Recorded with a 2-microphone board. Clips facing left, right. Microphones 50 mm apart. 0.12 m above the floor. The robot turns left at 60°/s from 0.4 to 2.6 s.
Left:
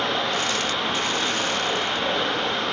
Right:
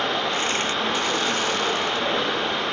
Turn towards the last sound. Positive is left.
turn(degrees=-160)